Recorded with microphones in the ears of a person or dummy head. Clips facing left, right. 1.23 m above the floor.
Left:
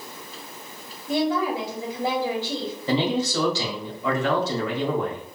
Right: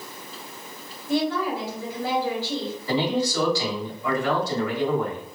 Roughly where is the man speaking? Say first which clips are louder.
Left 1 dB; left.